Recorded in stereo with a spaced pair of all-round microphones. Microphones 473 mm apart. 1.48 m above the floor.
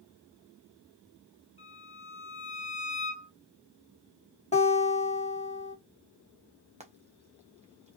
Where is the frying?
15° right (ahead or behind), 0.9 m.